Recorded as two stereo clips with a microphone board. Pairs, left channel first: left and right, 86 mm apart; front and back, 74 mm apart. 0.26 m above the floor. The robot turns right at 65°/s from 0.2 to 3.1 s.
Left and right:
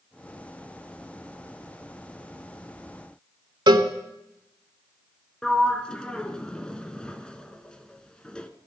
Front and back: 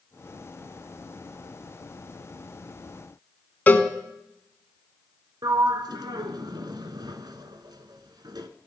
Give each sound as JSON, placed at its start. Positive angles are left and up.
{"t": 3.7, "sound": "a cowbell", "azimuth_deg": -65, "distance_m": 0.8}
{"t": 5.4, "sound": "a sliding door", "azimuth_deg": 170, "distance_m": 0.7}